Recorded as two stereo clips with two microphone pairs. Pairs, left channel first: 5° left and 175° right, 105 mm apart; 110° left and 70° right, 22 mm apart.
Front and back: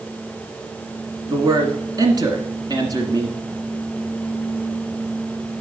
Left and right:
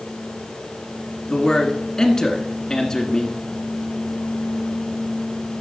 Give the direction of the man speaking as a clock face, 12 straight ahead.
7 o'clock.